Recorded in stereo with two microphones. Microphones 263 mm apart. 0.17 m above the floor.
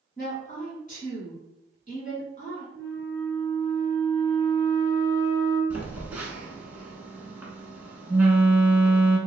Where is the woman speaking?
30° left (ahead or behind), 1.4 m.